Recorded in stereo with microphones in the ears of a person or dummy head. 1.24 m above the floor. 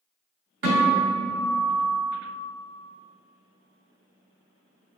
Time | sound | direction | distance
0.6 | a guitar | 55° right (ahead or behind) | 1.7 m